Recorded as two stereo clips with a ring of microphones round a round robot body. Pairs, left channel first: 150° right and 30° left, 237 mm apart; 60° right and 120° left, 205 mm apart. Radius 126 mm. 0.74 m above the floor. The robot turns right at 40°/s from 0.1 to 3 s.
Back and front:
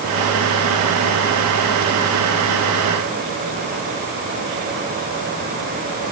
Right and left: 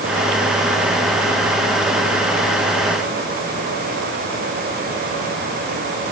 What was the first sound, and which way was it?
Only background noise.